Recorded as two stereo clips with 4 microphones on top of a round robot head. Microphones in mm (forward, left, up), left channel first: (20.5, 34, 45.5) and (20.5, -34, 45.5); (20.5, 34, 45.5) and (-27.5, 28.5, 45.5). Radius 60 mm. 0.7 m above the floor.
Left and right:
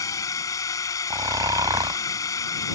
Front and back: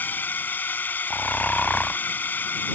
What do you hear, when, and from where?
0.0 s a drone: 55° left
1.1 s snoring: 65° right